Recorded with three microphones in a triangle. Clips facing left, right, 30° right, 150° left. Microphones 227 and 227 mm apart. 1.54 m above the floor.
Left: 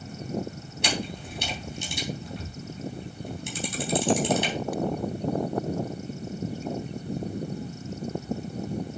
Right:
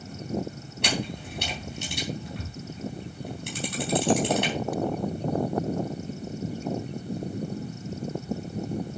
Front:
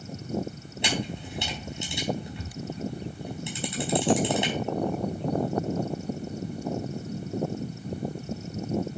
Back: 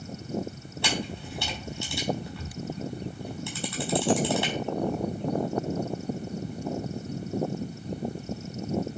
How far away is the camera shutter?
About 3.5 m.